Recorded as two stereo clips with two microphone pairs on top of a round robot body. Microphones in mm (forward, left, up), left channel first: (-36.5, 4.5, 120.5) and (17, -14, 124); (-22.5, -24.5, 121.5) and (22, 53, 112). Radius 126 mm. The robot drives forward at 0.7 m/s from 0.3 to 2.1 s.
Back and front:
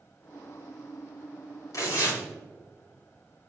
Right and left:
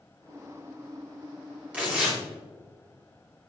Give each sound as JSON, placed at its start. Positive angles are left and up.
{"t": 1.7, "sound": "tearing paper", "azimuth_deg": 135, "distance_m": 3.5}